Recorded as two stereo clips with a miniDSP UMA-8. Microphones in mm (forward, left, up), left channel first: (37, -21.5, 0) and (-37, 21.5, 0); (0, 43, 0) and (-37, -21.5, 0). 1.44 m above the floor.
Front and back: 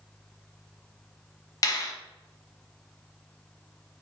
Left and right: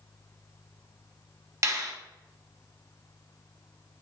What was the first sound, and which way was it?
A finger snap, 75° right.